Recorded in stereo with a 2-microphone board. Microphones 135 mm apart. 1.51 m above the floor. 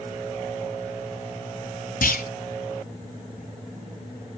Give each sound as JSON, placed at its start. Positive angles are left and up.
{"t": 2.0, "sound": "a clunk", "side_deg": 80, "distance_m": 4.0}